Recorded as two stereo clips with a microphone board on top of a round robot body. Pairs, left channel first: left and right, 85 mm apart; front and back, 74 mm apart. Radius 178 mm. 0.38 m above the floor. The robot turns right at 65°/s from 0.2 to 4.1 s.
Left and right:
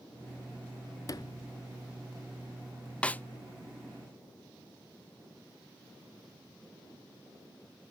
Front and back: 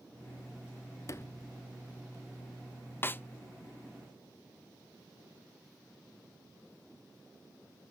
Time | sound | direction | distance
1.1 | a sliding door | 45° left | 0.9 m
3.0 | a snare drum | 25° left | 0.6 m